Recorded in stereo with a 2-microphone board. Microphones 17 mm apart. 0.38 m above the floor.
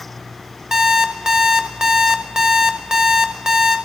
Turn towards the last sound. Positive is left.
turn(degrees=-40)  # may be behind; listen again after turning